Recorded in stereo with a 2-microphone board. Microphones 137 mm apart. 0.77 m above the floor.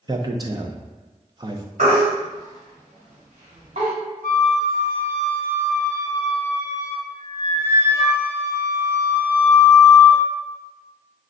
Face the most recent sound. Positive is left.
turn(degrees=-75)  # may be behind; listen again after turning